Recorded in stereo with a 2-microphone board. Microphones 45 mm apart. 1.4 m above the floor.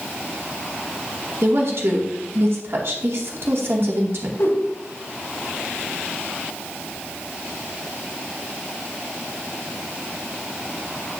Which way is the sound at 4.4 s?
70° left (ahead or behind).